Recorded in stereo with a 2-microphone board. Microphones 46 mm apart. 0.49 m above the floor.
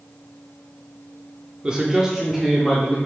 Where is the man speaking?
20° right (ahead or behind), 1.0 m; by 3.0 s 5° left (ahead or behind), 1.5 m.